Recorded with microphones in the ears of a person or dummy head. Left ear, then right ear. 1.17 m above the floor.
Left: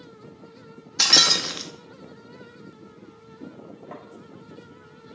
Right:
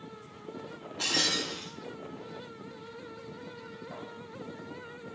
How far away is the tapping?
About 2.5 m.